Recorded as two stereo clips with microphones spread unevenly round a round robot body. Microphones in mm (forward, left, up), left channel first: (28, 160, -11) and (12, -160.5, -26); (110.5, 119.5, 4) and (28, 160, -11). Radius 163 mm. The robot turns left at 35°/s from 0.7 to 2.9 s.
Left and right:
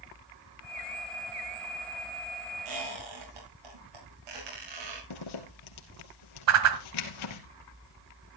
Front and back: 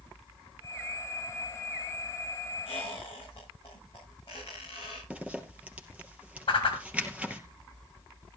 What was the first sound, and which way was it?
A squeak, 95° right.